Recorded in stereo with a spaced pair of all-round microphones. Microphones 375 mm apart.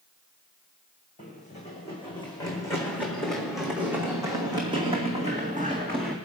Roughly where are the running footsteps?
Left.